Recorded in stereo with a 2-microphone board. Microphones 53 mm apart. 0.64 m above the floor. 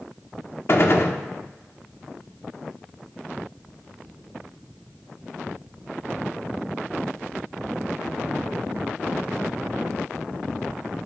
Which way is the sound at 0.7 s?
50° left (ahead or behind).